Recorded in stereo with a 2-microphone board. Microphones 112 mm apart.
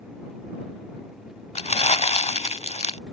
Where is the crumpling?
75° left (ahead or behind).